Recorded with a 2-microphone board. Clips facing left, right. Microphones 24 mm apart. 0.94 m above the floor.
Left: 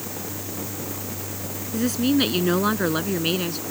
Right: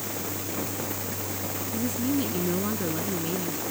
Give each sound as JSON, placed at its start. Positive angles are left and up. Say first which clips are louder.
{"t": 1.7, "sound": "a woman speaking", "louder": "left 7 dB", "side_deg": 70}